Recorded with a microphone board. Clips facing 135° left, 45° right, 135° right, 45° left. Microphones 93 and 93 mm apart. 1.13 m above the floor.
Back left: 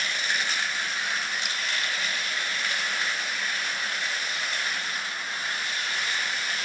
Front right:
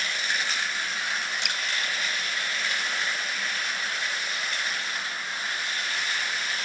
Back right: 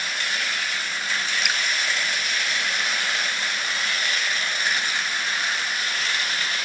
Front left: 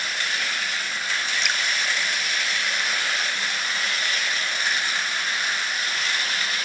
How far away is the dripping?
About 2 m.